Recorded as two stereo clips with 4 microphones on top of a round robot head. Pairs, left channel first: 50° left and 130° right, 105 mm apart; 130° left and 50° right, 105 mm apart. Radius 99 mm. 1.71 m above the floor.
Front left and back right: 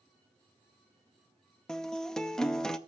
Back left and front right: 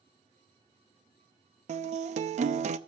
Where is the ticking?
I don't hear ticking.